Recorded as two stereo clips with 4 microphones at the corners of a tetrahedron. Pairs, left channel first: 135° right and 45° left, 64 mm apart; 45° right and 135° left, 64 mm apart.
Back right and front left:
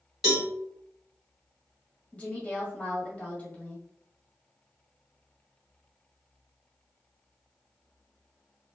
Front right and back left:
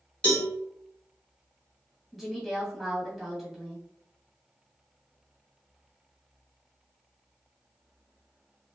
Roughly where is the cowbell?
Ahead right.